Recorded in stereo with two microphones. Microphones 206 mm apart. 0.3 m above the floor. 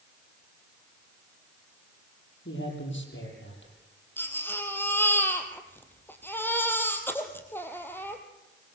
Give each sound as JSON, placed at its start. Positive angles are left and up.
{"t": 2.5, "sound": "a man speaking", "side_deg": 65, "distance_m": 9.5}
{"t": 4.2, "sound": "a baby crying", "side_deg": 10, "distance_m": 3.0}